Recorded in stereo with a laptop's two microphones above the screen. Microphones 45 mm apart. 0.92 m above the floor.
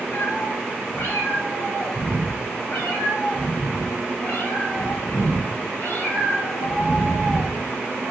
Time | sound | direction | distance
0.1 | a cat meowing | 60° left (ahead or behind) | 3 m